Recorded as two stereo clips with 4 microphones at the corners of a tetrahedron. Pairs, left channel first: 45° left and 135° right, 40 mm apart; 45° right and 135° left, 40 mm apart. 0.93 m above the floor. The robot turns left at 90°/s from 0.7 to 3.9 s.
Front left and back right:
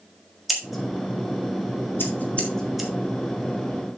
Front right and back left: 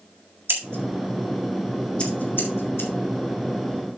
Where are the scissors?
135° left, 1.7 m; by 2.9 s 60° right, 1.7 m.